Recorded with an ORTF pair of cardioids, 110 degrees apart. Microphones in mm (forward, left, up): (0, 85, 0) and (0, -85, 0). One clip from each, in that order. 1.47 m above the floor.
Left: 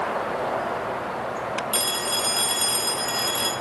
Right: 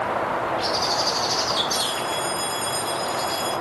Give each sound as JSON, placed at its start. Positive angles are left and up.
{"t": 1.7, "sound": "a phone ringing", "azimuth_deg": 60, "distance_m": 4.0}